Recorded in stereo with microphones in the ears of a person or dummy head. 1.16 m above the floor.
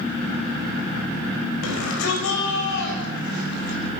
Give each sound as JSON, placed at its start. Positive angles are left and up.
{"t": 1.6, "sound": "a shout", "side_deg": 70, "distance_m": 5.5}